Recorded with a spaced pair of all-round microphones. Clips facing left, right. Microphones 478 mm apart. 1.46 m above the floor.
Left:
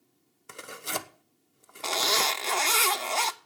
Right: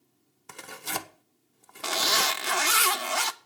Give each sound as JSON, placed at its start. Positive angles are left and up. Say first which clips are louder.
{"t": 0.5, "sound": "tearing paper", "louder": "left 1 dB", "side_deg": -10, "distance_m": 0.6}
{"t": 1.8, "sound": "a zipper", "louder": "left 1 dB", "side_deg": -35, "distance_m": 0.6}